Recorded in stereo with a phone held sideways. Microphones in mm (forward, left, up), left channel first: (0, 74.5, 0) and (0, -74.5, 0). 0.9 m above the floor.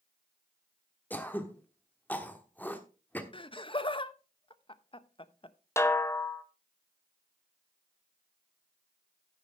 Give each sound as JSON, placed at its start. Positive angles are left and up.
{"t": 1.1, "sound": "throat clearing", "side_deg": 15, "distance_m": 1.2}
{"t": 3.3, "sound": "laughter", "side_deg": 35, "distance_m": 0.7}
{"t": 5.8, "sound": "a snare drum", "side_deg": 20, "distance_m": 0.8}